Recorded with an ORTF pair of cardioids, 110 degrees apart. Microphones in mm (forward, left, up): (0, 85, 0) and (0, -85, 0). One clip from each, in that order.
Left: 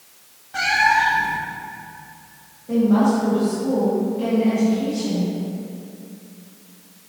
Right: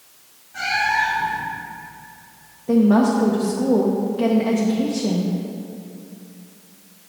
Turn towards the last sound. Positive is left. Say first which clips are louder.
# right 2 dB
turn(degrees=-60)